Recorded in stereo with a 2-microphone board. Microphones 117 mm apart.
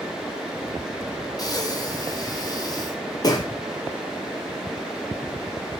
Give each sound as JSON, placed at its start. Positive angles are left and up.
{"t": 1.4, "sound": "breathing", "side_deg": 35, "distance_m": 0.6}